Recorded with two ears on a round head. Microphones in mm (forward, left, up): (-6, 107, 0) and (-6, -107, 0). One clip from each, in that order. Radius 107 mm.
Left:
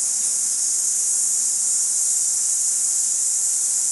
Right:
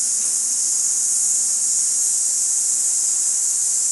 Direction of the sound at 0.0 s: 5° left (ahead or behind).